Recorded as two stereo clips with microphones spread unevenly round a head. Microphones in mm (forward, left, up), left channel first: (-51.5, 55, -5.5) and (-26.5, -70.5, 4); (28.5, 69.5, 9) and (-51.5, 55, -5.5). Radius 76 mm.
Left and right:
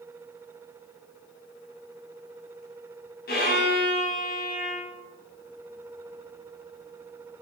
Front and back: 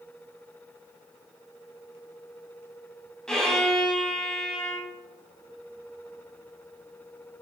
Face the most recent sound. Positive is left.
turn(degrees=90)